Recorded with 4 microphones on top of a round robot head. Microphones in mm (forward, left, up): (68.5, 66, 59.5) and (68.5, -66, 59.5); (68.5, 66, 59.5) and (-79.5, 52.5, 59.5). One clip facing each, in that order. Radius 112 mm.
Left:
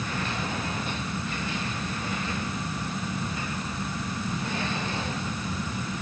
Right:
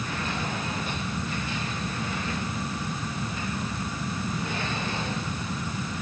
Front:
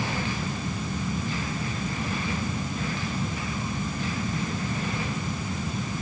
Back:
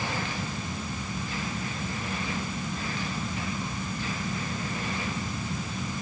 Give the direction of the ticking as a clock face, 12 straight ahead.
No ticking in this recording.